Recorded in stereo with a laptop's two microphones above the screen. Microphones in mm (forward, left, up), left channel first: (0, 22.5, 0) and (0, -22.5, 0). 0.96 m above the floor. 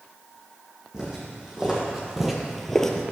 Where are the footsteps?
15° right (ahead or behind), 2 m; by 3.0 s 15° left (ahead or behind), 1.0 m.